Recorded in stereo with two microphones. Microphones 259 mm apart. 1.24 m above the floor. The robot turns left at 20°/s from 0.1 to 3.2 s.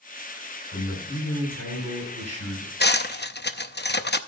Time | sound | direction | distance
0.7 | a man speaking | 110° left | 8.5 m
2.8 | cutlery clinking | 40° left (ahead or behind) | 0.7 m